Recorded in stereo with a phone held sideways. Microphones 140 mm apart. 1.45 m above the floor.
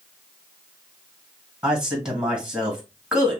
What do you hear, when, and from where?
1.6 s a man speaking: 5° right (ahead or behind), 1.5 m